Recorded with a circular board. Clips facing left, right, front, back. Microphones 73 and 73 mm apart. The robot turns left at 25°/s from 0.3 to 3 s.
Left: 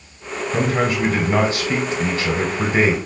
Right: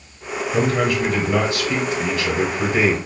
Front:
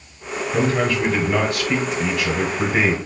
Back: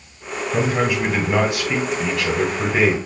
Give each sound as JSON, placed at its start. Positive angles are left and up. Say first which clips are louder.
{"t": 0.5, "sound": "a man speaking", "louder": "even, even", "azimuth_deg": 135, "distance_m": 1.0}